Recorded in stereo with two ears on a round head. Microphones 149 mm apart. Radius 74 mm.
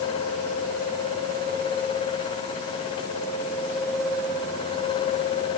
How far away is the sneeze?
No sneeze in this recording.